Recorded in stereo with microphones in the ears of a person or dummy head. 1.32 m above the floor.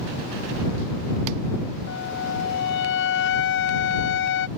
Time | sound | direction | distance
1.9 | a flute | 60° left (ahead or behind) | ?